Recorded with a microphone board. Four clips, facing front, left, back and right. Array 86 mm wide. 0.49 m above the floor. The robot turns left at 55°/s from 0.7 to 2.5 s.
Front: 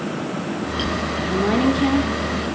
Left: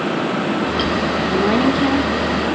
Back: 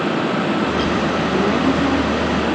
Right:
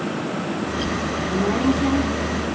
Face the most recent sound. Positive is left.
turn(degrees=30)